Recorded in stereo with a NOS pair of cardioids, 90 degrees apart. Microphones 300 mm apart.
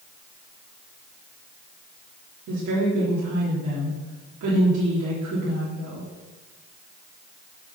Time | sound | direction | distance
2.5 | a woman speaking | 65° right | 3.5 m